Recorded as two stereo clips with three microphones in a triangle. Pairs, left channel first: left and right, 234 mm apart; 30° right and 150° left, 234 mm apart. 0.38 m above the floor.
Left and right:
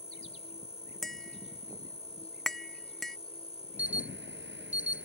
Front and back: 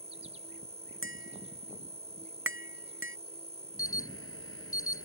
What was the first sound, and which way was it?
An insect, 120° left.